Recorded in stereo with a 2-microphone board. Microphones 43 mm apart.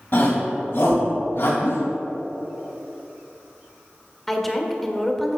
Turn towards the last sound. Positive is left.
turn(degrees=5)  # may be behind; listen again after turning